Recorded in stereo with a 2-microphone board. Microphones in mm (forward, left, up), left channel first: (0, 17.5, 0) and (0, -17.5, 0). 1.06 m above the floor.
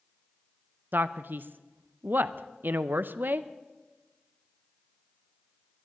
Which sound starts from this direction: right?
A man speaking, at 0.9 s.